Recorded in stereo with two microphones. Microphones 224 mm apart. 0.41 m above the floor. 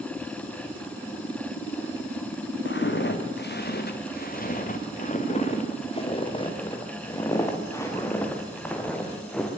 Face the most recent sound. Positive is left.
turn(degrees=5)  # may be behind; listen again after turning